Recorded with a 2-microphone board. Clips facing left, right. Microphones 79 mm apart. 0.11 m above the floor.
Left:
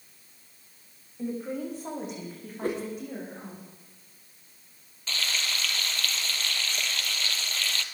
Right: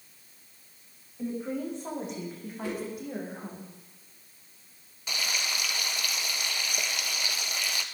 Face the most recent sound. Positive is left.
turn(degrees=-15)  # may be behind; listen again after turning